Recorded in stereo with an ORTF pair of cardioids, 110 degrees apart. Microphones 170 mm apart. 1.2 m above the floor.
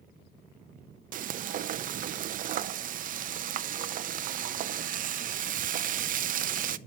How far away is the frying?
About 0.6 m.